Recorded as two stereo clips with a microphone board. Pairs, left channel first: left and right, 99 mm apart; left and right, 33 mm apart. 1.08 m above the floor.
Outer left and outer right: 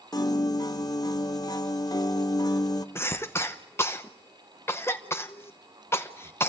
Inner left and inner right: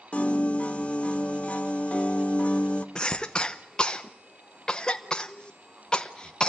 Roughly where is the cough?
Left.